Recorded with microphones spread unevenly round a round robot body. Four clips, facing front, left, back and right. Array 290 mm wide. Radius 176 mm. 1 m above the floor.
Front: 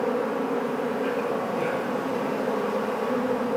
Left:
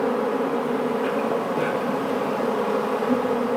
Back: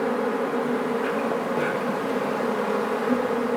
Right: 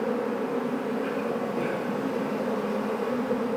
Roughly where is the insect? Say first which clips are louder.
Left 5 dB, back 1 dB; behind left.